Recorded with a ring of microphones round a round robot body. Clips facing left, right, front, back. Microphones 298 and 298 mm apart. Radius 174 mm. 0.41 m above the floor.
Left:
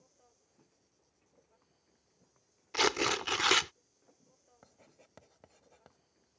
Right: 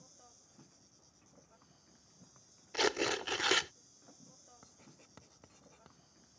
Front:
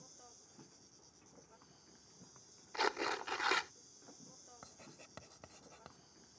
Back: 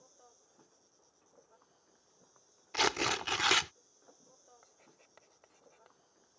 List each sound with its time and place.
0.0 s an insect: 50° right
2.7 s tearing paper: 165° left
4.6 s writing: 15° right